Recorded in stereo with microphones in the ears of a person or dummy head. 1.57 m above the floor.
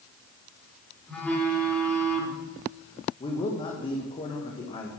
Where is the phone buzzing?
10° left (ahead or behind), 5 m.